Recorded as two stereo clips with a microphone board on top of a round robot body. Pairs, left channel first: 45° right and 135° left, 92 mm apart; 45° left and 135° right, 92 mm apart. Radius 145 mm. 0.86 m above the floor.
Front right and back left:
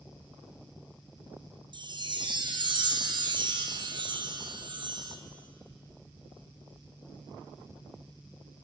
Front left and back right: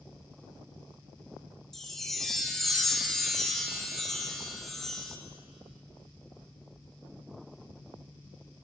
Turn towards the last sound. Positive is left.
turn(degrees=130)